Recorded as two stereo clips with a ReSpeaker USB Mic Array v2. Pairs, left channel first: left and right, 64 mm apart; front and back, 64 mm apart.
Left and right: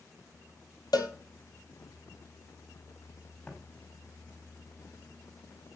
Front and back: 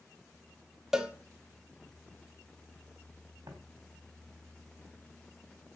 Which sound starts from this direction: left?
A cowbell, at 0.9 s.